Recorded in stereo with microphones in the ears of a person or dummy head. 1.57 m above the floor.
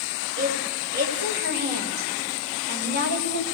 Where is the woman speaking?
70° right (ahead or behind), 8 m.